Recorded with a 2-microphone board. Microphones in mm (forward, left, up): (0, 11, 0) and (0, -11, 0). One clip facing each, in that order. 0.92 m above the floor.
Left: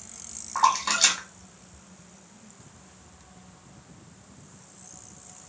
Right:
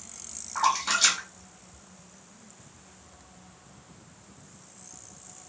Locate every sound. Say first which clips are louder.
0.6 s a splash: left 2 dB; 25° left (ahead or behind), 1.5 m